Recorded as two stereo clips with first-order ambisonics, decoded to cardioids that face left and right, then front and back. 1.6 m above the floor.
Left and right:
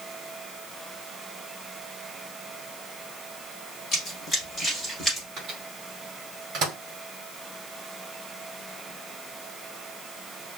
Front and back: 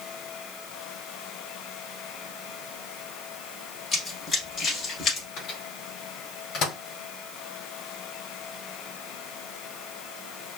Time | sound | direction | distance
3.9 | running footsteps | 55° left | 1.8 m
5.4 | a microwave | 40° right | 1.4 m